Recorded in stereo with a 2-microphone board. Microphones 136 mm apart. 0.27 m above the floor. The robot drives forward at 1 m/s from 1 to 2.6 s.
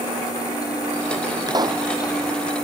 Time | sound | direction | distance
1.5 | a pop | 30° right (ahead or behind) | ?